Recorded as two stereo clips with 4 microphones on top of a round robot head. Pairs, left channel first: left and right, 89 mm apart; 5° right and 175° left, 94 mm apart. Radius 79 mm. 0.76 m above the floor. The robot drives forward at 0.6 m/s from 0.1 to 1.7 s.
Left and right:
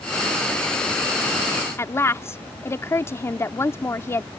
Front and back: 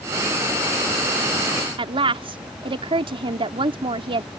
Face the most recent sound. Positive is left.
turn(degrees=150)